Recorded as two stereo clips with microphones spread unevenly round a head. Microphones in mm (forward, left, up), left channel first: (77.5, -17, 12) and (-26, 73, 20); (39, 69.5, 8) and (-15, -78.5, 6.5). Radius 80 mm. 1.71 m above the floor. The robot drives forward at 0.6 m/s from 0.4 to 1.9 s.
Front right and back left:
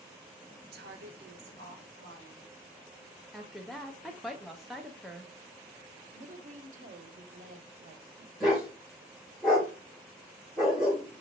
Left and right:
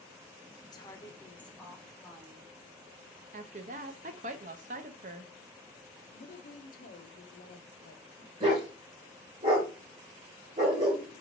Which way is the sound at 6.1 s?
110° left.